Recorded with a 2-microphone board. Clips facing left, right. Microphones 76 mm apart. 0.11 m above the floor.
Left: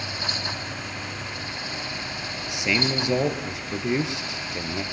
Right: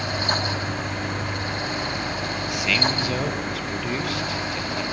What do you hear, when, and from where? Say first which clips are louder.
2.5 s a man speaking: even; 20° left (ahead or behind), 3 m